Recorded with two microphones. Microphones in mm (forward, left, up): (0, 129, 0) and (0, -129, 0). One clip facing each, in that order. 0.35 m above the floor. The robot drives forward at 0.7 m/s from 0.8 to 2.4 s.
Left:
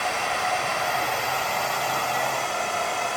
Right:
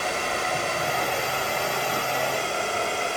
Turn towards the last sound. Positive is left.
turn(degrees=-30)  # may be behind; listen again after turning